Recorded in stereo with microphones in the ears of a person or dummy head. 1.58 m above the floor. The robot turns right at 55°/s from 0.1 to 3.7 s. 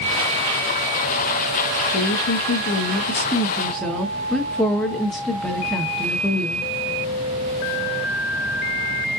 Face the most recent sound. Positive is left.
turn(degrees=180)